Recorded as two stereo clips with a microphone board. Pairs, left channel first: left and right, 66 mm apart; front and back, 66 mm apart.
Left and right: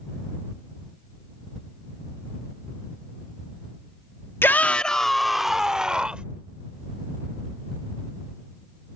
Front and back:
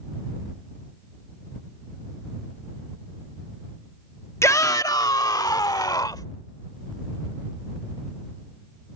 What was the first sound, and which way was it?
A shout, 40° left.